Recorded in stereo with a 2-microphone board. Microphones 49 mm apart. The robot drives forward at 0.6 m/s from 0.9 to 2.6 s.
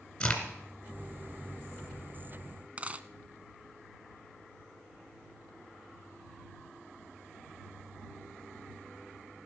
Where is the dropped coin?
30° right (ahead or behind), 0.5 m.